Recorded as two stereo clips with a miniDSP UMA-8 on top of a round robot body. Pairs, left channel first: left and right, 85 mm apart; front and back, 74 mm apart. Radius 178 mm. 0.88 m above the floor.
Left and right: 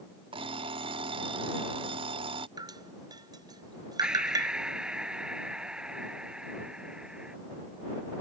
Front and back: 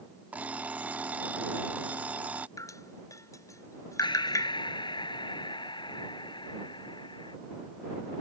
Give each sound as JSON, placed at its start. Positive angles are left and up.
{"t": 0.3, "sound": "an alarm clock", "azimuth_deg": -110}
{"t": 2.6, "sound": "dripping", "azimuth_deg": -45}
{"t": 4.0, "sound": "breathing", "azimuth_deg": -10}